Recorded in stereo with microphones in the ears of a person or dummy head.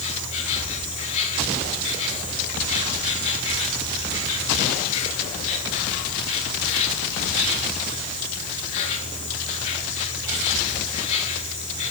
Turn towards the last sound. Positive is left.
turn(degrees=40)  # may be behind; listen again after turning